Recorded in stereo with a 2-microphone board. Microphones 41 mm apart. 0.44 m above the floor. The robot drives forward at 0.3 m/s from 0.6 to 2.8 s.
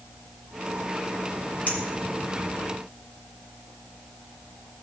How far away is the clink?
About 3 m.